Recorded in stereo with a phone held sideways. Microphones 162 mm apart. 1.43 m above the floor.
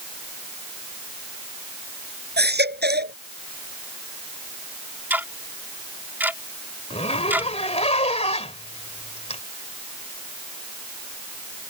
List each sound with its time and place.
2.4 s a baby crying: 80° right
5.1 s ticking: 10° right (ahead or behind)
6.9 s a zipper: 40° left (ahead or behind)